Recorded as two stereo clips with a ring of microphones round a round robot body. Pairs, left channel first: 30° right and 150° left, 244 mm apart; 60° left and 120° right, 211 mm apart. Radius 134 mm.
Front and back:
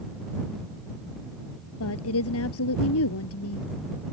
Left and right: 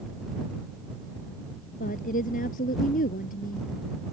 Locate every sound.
1.8 s a woman speaking: straight ahead